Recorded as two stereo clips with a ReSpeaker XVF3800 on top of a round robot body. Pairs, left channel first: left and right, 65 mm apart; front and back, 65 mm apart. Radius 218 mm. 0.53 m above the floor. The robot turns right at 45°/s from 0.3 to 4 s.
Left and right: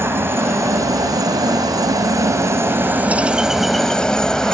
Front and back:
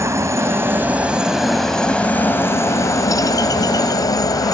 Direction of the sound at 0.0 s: 140° right.